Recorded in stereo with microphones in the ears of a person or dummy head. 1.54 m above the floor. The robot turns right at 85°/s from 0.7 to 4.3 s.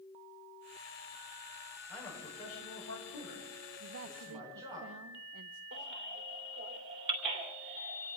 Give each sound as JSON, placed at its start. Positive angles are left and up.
{"t": 1.9, "sound": "a man speaking", "azimuth_deg": 0, "distance_m": 8.0}
{"t": 3.8, "sound": "a man speaking", "azimuth_deg": -130, "distance_m": 0.5}
{"t": 5.7, "sound": "a baby crying", "side_deg": -60, "distance_m": 2.0}